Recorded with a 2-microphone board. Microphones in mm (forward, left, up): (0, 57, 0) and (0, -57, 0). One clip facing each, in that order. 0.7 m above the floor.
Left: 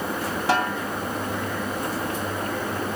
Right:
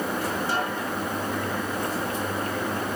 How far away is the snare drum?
About 2.5 m.